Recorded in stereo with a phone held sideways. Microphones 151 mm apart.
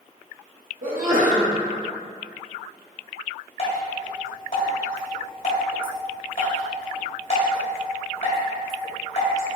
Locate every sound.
0.8 s a sneeze: 65° right (ahead or behind), 1.5 m
3.6 s dripping: 60° left (ahead or behind), 1.7 m